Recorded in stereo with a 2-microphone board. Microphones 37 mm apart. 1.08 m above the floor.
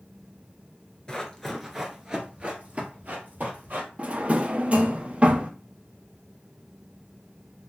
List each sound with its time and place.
1.1 s running footsteps: 20° left (ahead or behind), 1.1 m; by 3.9 s 55° right (ahead or behind), 1.9 m
4.0 s a drawer: 35° right (ahead or behind), 0.6 m